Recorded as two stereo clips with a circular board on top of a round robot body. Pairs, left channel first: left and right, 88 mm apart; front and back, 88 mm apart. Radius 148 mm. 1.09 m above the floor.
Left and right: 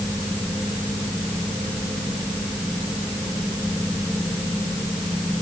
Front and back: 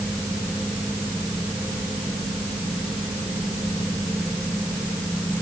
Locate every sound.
Only background noise.